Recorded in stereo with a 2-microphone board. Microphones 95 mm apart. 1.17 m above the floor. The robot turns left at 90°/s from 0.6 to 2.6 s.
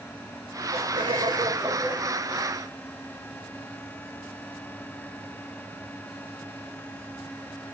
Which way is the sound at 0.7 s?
80° right.